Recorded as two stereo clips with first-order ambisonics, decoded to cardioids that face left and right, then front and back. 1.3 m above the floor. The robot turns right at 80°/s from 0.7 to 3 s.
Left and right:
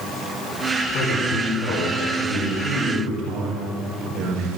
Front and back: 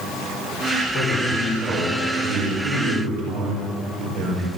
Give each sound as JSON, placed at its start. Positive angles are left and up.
{"t": 0.9, "sound": "a man speaking", "azimuth_deg": 45, "distance_m": 4.5}